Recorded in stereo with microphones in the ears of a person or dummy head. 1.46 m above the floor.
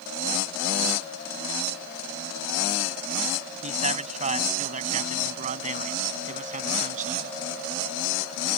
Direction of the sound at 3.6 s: 40° right (ahead or behind).